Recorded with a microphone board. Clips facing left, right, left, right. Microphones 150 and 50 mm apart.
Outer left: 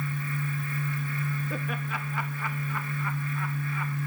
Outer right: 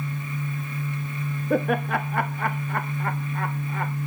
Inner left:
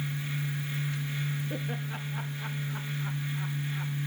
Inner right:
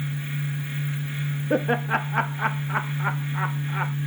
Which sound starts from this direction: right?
Laughter, at 1.5 s.